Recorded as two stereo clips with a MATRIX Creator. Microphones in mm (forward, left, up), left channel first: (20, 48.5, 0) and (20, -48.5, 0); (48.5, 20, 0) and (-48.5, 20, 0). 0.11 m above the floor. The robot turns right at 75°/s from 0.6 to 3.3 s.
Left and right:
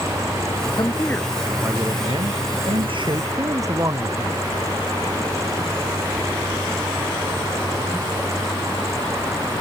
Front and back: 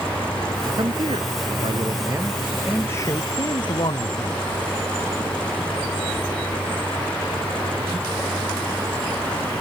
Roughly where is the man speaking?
Behind left.